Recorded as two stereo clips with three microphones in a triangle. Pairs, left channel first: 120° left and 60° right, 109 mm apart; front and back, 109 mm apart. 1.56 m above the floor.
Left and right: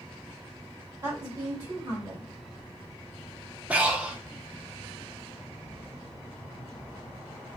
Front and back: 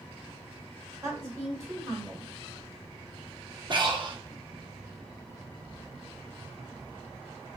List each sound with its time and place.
1.0 s a woman speaking: 115° right, 1.4 m
3.7 s breathing: 135° right, 0.5 m